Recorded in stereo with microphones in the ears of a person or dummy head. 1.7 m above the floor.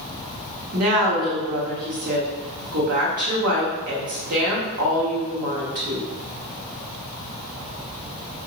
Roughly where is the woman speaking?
Right.